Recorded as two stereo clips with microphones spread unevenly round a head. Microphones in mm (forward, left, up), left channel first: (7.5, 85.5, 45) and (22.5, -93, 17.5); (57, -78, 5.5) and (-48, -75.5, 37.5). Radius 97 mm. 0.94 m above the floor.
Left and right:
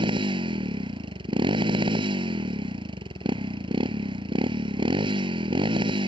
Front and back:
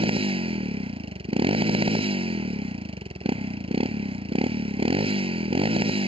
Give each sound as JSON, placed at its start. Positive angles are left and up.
{"t": 0.0, "sound": "a motorcycle", "azimuth_deg": -150}